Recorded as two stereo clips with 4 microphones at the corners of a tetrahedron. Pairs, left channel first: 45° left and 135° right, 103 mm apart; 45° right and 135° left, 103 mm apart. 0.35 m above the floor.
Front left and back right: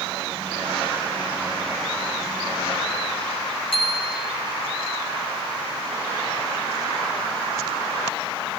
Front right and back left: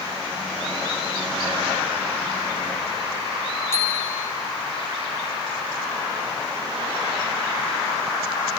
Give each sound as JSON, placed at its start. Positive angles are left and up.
{"t": 3.7, "sound": "a bicycle bell", "azimuth_deg": 20, "distance_m": 3.5}